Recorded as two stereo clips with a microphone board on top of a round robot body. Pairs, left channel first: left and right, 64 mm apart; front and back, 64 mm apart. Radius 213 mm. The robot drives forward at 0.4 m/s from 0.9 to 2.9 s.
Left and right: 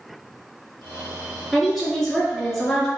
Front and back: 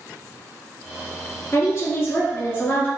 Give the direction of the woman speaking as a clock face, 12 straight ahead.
12 o'clock.